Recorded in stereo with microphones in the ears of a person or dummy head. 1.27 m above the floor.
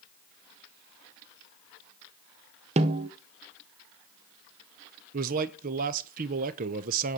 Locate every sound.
2.8 s a snare drum: 30° right (ahead or behind), 0.7 m
5.1 s a man speaking: 45° right (ahead or behind), 0.9 m